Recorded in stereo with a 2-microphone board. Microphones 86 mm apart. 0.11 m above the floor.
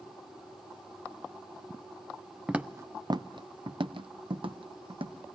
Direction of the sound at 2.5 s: 10° right (ahead or behind).